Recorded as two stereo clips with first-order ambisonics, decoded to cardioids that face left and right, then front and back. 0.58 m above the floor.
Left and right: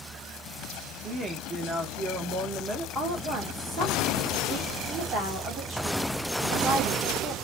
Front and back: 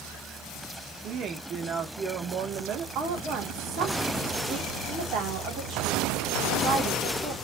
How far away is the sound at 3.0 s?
About 1.7 m.